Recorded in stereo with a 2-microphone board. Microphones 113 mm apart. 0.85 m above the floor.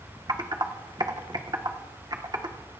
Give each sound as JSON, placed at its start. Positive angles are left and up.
{"t": 0.3, "sound": "typing on a keyboard", "side_deg": -45, "distance_m": 1.4}